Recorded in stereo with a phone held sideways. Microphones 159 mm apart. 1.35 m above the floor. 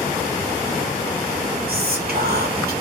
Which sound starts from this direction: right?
Whispering, at 1.7 s.